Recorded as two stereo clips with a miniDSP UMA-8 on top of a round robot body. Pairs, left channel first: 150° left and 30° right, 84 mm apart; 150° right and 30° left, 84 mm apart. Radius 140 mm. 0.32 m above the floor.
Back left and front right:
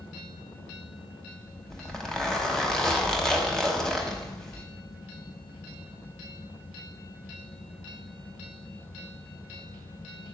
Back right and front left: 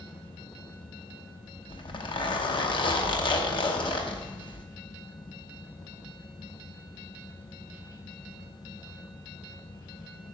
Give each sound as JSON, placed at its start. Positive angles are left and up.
{"t": 1.7, "sound": "a zipper", "azimuth_deg": -125, "distance_m": 1.0}